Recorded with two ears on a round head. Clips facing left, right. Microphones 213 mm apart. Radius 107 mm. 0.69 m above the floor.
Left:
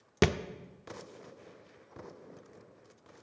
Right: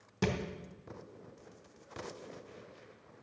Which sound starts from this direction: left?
A thud, at 0.2 s.